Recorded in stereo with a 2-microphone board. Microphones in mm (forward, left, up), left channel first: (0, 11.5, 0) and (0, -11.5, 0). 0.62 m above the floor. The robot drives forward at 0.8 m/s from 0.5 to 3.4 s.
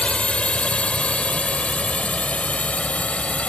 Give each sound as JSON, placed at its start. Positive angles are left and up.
{"t": 0.0, "sound": "a drone", "side_deg": 60}